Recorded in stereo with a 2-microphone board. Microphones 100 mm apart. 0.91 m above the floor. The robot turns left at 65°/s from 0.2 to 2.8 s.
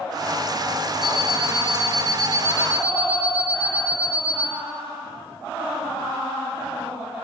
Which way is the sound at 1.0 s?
50° right.